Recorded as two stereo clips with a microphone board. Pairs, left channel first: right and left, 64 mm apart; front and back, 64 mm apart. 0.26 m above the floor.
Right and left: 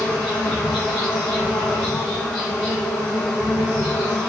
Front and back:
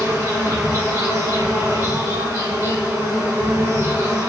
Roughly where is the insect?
Behind.